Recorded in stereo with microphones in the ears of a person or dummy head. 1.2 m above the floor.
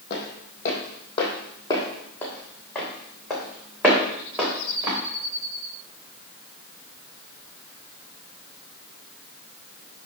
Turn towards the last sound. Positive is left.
turn(degrees=-15)  # may be behind; listen again after turning